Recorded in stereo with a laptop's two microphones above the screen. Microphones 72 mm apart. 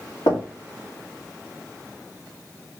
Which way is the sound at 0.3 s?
70° left (ahead or behind).